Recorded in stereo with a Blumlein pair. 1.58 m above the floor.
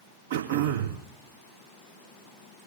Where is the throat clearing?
60° right, 2 m.